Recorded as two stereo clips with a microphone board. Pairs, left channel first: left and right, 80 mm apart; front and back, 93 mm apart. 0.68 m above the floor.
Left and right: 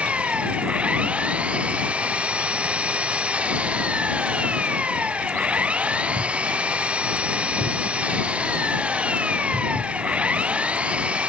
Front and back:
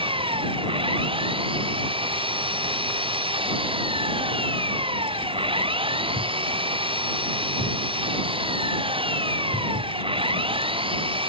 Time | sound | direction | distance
0.0 | an engine running | 165° right | ?